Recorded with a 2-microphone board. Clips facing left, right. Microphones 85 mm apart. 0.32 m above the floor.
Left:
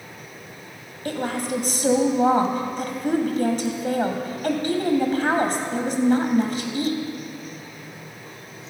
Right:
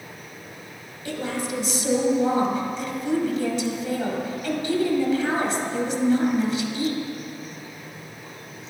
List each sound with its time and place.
1.1 s a woman speaking: 50° left (ahead or behind), 1.8 m